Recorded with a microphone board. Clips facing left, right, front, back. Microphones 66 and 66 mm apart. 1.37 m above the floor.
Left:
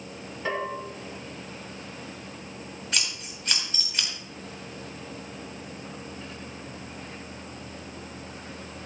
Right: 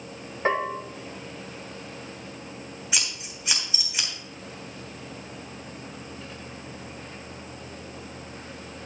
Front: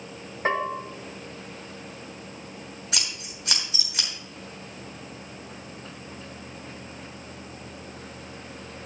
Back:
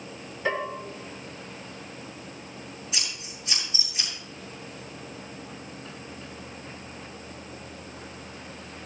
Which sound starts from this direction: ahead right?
A bell, at 0.5 s.